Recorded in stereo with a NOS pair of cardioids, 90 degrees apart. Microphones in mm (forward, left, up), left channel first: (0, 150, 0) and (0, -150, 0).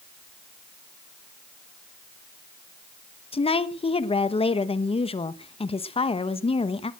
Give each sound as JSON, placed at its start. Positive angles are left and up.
{"t": 3.3, "sound": "a woman speaking", "azimuth_deg": 20, "distance_m": 1.1}